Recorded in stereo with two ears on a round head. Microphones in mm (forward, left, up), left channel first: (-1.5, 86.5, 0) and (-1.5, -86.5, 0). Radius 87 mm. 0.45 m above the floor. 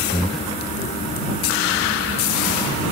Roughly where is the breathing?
Centre.